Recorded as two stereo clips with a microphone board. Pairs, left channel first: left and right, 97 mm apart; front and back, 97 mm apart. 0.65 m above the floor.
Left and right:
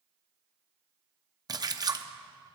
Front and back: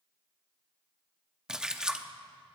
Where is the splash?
100° right, 0.7 m.